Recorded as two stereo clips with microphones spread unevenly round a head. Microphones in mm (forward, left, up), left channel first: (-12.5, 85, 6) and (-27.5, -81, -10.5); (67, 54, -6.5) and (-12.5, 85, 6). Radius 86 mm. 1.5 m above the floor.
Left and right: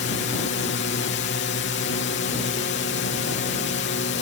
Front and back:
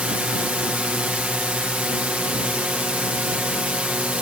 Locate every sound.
0.0 s a drone: 85° left